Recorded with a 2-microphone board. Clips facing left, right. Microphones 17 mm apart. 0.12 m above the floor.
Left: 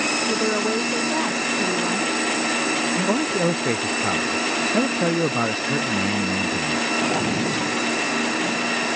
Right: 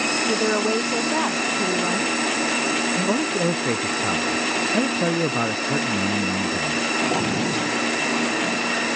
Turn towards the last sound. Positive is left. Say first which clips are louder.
# even
turn(degrees=5)  # may be behind; listen again after turning